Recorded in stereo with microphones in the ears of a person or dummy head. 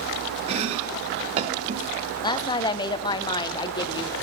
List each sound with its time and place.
0.5 s chopping: 35° right (ahead or behind), 1.0 m
2.2 s a woman speaking: 25° left (ahead or behind), 0.5 m